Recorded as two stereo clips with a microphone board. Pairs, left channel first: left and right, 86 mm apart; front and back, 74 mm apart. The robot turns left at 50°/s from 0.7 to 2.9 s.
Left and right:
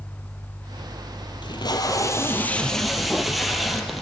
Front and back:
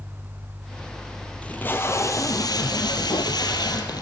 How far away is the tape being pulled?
About 2.0 m.